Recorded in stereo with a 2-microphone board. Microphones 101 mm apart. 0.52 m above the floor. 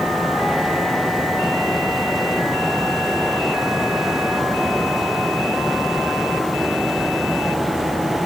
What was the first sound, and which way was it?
Only background noise.